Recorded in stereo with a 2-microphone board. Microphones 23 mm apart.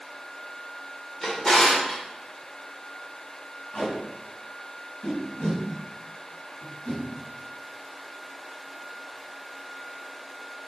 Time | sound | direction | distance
1.2 | a drawer | 35° left (ahead or behind) | 2 m
3.7 | tape being pulled | 65° left (ahead or behind) | 3 m